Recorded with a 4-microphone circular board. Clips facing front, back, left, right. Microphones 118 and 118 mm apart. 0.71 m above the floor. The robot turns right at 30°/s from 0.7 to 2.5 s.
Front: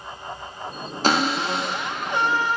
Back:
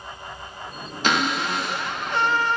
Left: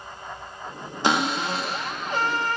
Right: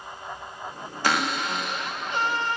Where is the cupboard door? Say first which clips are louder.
Front 2 dB, left 3 dB; 35° left, 0.9 m; by 2.6 s 75° left, 0.9 m.